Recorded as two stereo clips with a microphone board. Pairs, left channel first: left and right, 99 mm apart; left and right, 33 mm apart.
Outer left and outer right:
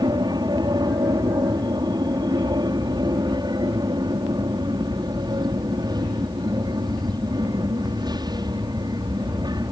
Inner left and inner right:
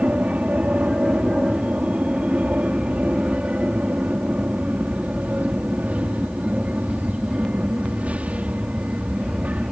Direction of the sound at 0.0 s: 45° right (ahead or behind).